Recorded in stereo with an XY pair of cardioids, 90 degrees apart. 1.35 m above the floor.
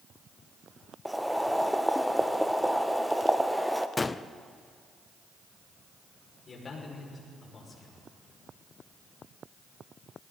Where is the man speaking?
40° left, 5.5 m.